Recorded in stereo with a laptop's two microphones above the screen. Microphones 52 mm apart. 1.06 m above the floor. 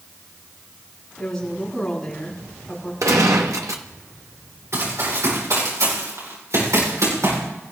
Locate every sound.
1.2 s a woman speaking: 5° left (ahead or behind), 9 m
3.0 s a gunshot: 80° right, 1.3 m
4.7 s running footsteps: 65° right (ahead or behind), 9.5 m; by 7.4 s 80° right, 9.5 m